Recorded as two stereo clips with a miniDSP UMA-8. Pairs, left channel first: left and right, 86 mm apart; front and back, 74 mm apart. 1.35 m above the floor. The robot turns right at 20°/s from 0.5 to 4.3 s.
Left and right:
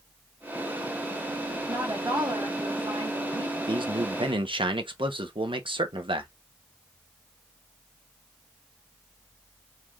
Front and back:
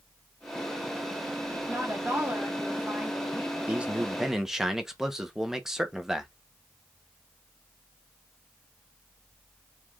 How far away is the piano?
No piano in this recording.